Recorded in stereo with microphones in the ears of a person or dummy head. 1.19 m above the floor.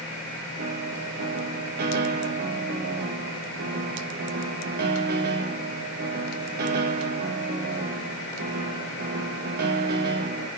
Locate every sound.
0.6 s a piano: 50° right (ahead or behind), 1.2 m